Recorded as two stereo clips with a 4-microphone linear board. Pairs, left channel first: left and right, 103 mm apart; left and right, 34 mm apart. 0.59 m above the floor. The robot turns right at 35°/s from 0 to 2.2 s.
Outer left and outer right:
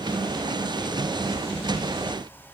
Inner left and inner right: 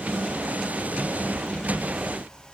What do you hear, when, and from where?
Only background noise.